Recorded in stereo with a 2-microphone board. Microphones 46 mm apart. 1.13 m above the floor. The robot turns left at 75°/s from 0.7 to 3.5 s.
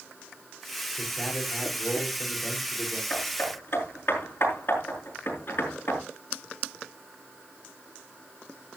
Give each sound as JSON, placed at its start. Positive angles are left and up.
{"t": 1.0, "sound": "a man speaking", "azimuth_deg": 165, "distance_m": 3.5}
{"t": 3.1, "sound": "hammering", "side_deg": 25, "distance_m": 5.5}